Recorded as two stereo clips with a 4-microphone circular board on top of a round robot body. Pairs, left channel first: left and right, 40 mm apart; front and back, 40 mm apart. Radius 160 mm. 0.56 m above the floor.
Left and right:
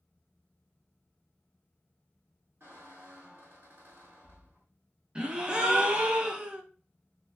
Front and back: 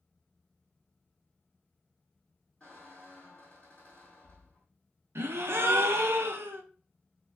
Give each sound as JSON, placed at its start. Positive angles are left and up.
{"t": 2.6, "sound": "a squeak", "azimuth_deg": -80, "distance_m": 0.6}
{"t": 5.2, "sound": "a gasp", "azimuth_deg": -160, "distance_m": 0.5}